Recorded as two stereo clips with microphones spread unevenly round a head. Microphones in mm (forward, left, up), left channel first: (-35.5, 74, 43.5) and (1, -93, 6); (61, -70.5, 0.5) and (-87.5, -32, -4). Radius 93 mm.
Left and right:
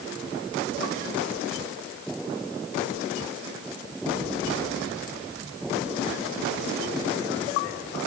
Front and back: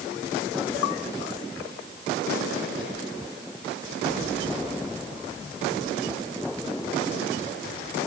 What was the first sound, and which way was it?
Only background noise.